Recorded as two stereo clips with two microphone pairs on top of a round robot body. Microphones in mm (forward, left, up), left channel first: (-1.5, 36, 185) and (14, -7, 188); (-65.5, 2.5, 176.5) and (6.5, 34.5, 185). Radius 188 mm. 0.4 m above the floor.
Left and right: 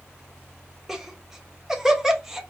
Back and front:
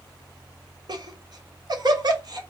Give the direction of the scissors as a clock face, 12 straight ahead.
No scissors in this recording.